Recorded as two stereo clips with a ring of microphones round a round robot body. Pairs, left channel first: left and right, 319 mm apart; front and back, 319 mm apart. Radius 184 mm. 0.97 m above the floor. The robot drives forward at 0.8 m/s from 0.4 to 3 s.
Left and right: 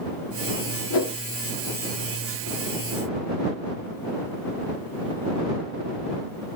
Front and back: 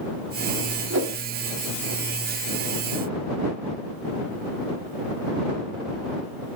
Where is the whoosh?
125° left, 1.5 m; by 1.2 s 130° left, 1.7 m.